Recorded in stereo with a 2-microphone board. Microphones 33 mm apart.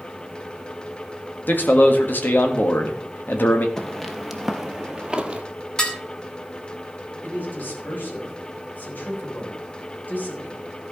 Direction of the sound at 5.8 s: 25° left (ahead or behind).